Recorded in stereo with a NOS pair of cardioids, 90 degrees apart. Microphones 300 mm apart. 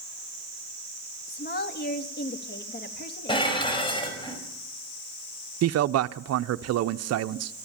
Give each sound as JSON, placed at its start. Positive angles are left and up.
{"t": 1.3, "sound": "a woman speaking", "azimuth_deg": 30, "distance_m": 3.0}
{"t": 3.3, "sound": "dishes clattering", "azimuth_deg": 15, "distance_m": 5.0}
{"t": 5.6, "sound": "a man speaking", "azimuth_deg": -55, "distance_m": 0.7}